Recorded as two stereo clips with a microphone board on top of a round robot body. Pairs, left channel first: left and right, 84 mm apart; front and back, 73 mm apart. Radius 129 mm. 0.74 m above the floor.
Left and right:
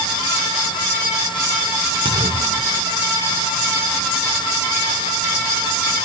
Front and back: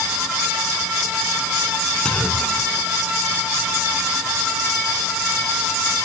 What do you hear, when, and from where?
2.0 s a clunk: 75° right